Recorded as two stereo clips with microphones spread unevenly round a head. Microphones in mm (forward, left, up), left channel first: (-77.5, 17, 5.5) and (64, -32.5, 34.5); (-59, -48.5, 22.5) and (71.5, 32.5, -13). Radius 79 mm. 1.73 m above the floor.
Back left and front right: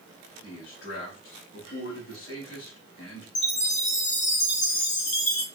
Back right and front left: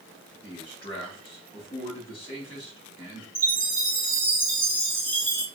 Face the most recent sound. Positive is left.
turn(degrees=135)